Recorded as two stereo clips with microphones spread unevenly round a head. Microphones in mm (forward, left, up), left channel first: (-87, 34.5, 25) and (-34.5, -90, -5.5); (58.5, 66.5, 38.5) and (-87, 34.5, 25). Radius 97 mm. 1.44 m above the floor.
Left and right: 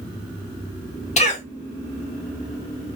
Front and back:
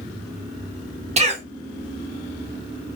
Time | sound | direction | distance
1.2 | a cough | 145° left | 0.8 m